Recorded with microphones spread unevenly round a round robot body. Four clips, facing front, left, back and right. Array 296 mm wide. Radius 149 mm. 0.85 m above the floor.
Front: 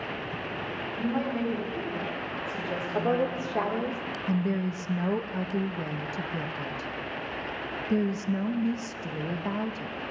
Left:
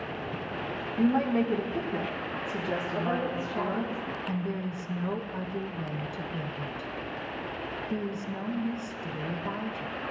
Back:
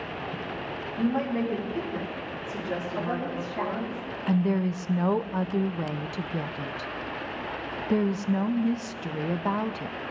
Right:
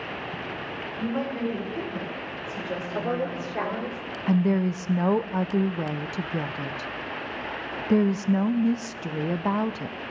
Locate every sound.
1.0 s a woman speaking: 95° left, 4.5 m
3.0 s a woman speaking: 20° right, 1.9 m
4.3 s a woman speaking: 90° right, 0.6 m